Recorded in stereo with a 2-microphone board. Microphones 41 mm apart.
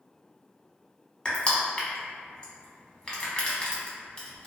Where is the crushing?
25° left (ahead or behind), 0.7 m.